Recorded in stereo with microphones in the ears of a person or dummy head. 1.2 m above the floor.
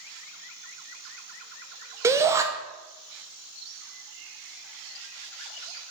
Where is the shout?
20° right (ahead or behind), 0.7 m.